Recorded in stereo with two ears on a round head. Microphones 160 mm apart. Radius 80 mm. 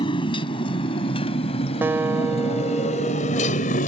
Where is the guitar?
10° right (ahead or behind).